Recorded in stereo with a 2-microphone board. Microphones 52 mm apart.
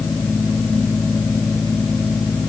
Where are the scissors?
I don't hear scissors.